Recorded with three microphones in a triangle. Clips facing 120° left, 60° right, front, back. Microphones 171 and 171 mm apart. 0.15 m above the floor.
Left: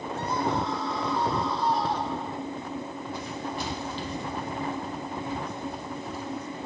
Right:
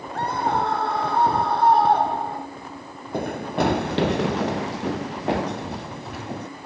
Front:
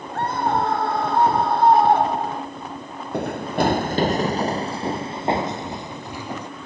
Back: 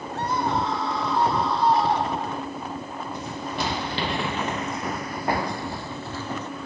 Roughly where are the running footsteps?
Ahead right.